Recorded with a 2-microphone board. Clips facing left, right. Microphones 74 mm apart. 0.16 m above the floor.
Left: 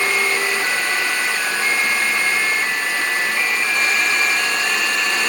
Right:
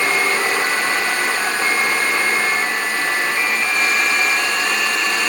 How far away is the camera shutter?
I don't hear a camera shutter.